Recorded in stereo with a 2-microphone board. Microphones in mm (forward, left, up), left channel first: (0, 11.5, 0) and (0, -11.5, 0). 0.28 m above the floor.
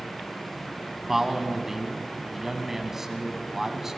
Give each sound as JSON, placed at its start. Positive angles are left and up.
{"t": 1.1, "sound": "a man speaking", "side_deg": -20, "distance_m": 1.9}